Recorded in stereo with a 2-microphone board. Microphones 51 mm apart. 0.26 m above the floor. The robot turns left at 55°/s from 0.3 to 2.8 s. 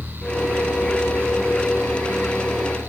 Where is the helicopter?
35° right (ahead or behind); by 2.9 s 10° right (ahead or behind).